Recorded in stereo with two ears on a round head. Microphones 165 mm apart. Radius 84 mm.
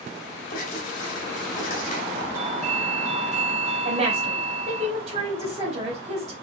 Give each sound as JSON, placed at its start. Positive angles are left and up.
{"t": 0.5, "sound": "writing", "side_deg": 40, "distance_m": 2.5}
{"t": 2.3, "sound": "a doorbell", "side_deg": -40, "distance_m": 2.0}
{"t": 3.9, "sound": "a woman speaking", "side_deg": -35, "distance_m": 3.0}